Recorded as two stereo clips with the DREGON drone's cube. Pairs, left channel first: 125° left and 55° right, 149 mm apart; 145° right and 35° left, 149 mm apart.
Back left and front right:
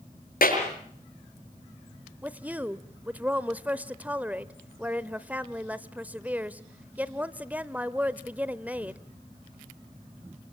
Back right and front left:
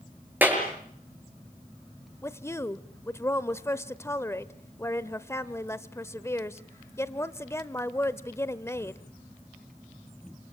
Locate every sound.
0.4 s a clap: 110° left, 6.5 m
2.2 s a woman speaking: 115° right, 0.9 m